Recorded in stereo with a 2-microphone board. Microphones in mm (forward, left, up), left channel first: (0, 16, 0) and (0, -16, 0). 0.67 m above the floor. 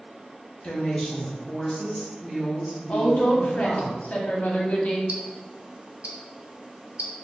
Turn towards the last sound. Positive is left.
turn(degrees=-50)  # may be behind; listen again after turning